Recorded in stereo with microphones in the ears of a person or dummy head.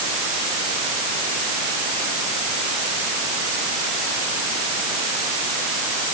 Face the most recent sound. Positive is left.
No sound to turn to.